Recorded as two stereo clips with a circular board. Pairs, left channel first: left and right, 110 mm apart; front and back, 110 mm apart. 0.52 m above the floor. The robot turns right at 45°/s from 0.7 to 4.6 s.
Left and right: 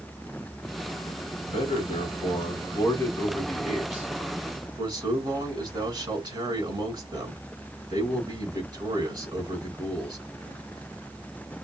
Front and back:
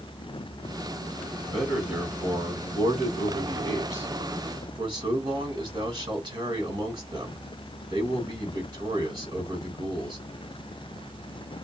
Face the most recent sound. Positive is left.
turn(degrees=-140)